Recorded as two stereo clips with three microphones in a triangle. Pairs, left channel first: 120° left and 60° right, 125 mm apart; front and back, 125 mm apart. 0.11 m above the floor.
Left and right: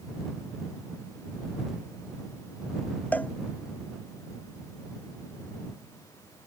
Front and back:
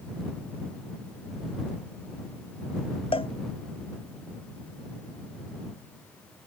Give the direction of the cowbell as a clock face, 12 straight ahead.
11 o'clock.